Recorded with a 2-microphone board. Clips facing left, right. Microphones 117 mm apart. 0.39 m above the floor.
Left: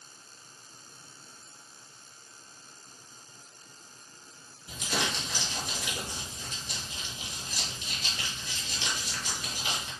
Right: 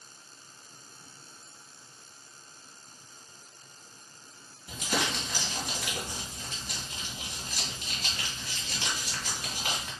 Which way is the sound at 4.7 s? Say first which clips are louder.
Right 1 dB; 50° right (ahead or behind).